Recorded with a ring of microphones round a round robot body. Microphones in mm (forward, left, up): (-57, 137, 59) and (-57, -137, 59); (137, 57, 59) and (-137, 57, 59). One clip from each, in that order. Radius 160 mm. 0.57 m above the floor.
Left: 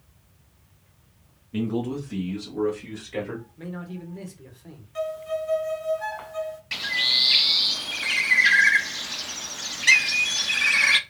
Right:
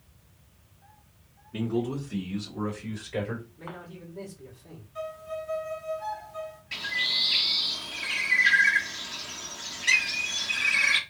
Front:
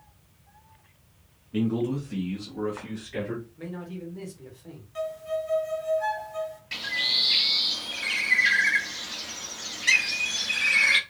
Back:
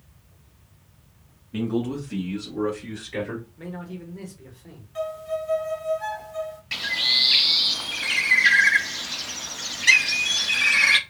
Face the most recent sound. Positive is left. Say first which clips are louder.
# left 5 dB, back 4 dB
turn(degrees=115)